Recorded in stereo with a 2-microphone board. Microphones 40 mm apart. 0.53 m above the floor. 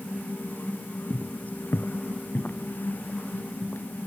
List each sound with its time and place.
1.1 s footsteps: 40° left (ahead or behind), 0.7 m; by 3.9 s 65° left (ahead or behind), 2.5 m